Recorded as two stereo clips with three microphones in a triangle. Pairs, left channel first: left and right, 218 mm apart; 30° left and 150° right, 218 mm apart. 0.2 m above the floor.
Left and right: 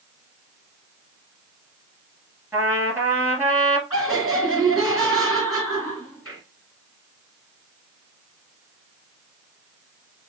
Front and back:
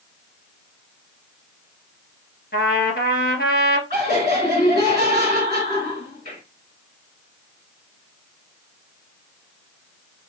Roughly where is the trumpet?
Ahead.